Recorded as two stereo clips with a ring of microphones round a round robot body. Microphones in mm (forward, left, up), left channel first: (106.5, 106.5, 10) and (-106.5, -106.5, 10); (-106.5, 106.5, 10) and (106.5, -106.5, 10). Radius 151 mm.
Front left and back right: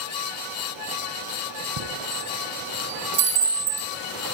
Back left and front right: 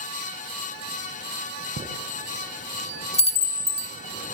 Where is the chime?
155° right, 5 m.